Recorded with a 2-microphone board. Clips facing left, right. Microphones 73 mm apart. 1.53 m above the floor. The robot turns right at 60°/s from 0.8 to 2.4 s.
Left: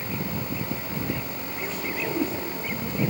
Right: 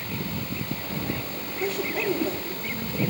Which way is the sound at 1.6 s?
80° right.